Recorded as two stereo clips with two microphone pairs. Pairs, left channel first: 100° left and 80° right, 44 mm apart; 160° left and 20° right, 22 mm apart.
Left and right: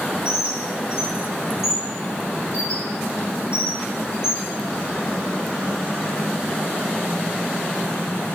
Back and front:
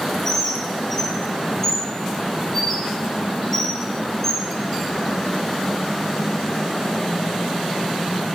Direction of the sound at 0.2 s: 90° left.